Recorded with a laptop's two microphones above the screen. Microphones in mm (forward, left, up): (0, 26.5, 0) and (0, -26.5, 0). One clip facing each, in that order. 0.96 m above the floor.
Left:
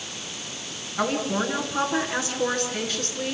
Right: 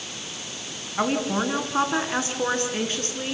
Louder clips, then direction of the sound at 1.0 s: Right 1 dB; 25° right (ahead or behind).